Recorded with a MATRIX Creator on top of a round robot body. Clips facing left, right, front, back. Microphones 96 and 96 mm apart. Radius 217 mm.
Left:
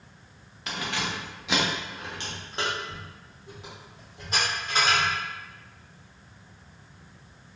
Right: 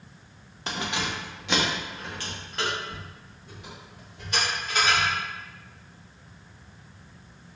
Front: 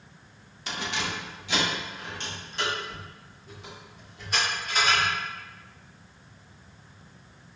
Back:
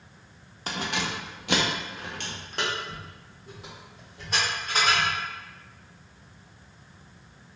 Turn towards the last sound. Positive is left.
turn(degrees=135)